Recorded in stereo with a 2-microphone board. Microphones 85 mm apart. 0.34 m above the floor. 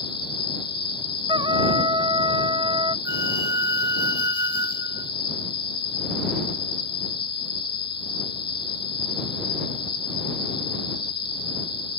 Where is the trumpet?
75° right (ahead or behind).